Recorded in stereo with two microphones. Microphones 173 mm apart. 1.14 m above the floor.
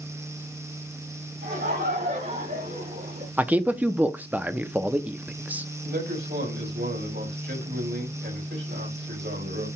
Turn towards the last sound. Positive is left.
turn(degrees=-85)